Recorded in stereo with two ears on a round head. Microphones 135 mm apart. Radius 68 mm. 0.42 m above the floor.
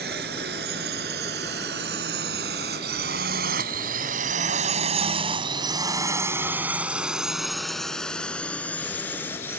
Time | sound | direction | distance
0.0 | a drone | 70° right (ahead or behind) | ?